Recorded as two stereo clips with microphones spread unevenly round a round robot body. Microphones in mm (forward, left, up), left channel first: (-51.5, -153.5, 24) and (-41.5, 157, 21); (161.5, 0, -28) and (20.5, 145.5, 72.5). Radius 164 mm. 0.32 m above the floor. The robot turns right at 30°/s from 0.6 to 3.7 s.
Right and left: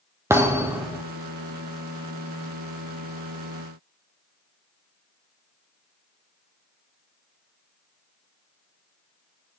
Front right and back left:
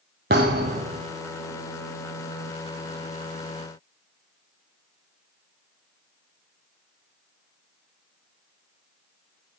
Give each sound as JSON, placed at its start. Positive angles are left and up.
{"t": 0.3, "sound": "a thud", "azimuth_deg": 170, "distance_m": 0.7}